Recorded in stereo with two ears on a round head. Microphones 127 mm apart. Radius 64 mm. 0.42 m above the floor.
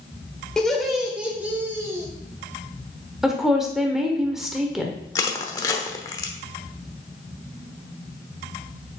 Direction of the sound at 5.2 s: 25° left (ahead or behind).